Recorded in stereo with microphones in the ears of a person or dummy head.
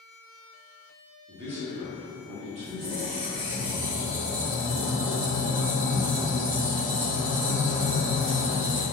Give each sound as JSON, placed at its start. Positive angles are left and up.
{"t": 1.3, "sound": "a man speaking", "side_deg": -40, "distance_m": 0.8}
{"t": 2.6, "sound": "a squeak", "side_deg": -25, "distance_m": 1.0}